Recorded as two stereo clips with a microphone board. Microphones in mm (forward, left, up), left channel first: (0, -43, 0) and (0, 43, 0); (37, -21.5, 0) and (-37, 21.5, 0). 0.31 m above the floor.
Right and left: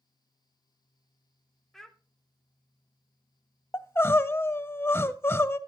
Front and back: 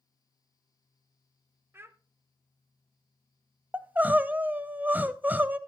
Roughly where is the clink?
I don't hear a clink.